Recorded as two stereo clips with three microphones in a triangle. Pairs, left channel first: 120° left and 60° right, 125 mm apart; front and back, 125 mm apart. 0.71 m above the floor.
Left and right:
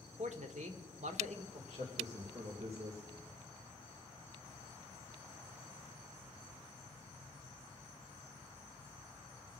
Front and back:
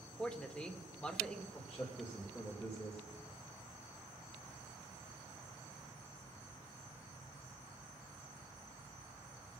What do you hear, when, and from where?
0.2 s a man speaking: 80° right, 1.6 m
1.5 s a man speaking: 80° right, 3 m